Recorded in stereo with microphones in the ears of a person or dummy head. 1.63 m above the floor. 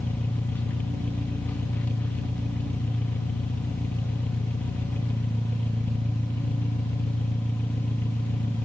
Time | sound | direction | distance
0.0 | an engine running | 10° left (ahead or behind) | 1.0 m